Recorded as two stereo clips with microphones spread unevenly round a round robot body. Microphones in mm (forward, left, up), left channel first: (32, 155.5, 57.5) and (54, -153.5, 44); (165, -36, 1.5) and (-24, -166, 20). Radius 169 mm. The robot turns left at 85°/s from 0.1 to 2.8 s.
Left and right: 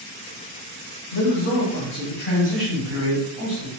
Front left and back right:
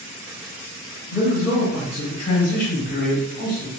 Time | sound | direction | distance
1.1 | a man speaking | 130° left | 1.7 m